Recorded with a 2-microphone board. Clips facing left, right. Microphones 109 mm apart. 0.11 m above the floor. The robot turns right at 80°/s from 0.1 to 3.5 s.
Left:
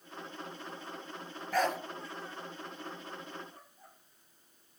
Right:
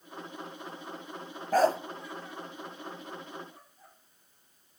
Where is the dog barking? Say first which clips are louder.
Right 7 dB; 40° right (ahead or behind), 0.6 m; by 1.8 s 25° right (ahead or behind), 0.6 m.